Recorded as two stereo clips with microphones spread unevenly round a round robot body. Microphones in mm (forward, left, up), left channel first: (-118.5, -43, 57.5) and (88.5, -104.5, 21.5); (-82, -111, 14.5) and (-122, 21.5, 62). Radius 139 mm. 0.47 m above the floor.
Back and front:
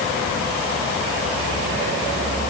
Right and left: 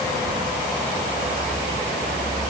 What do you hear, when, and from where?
Only background noise.